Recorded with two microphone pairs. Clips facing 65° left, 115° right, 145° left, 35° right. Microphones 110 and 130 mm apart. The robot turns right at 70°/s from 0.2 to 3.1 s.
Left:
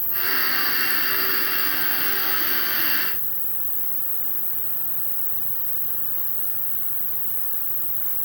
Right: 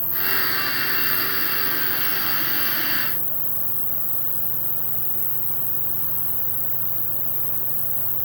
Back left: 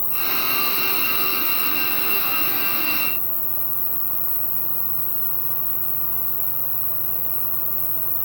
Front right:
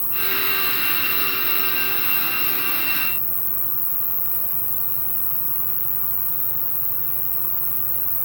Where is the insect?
30° left, 1.1 m; by 8.3 s 130° right, 1.1 m.